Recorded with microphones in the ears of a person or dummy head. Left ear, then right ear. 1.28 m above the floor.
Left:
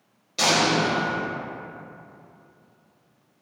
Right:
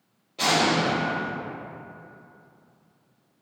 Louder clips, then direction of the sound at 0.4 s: Left 1 dB; 65° left (ahead or behind).